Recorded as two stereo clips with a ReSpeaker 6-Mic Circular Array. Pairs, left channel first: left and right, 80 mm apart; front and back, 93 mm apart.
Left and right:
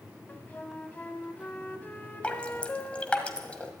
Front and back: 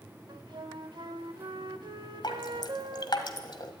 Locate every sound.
0.3 s a flute: 155° left, 0.8 m
2.2 s dripping: 20° left, 1.4 m